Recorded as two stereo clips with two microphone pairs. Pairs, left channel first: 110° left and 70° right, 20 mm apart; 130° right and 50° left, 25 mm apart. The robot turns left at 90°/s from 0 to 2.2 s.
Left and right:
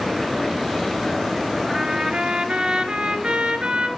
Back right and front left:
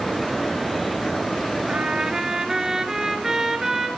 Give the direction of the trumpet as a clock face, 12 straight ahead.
11 o'clock.